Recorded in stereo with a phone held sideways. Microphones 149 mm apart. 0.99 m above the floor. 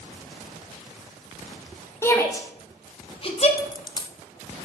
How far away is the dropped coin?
About 0.7 m.